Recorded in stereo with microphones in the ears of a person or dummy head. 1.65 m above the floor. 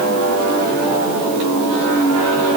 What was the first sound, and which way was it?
Only background noise.